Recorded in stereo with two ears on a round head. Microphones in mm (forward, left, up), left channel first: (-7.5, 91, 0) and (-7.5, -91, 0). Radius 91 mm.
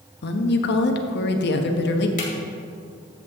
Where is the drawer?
45° left (ahead or behind), 2.5 m.